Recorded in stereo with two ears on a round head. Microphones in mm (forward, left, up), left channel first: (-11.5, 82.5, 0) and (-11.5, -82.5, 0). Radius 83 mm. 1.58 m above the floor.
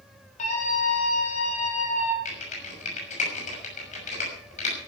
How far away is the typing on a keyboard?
About 6 m.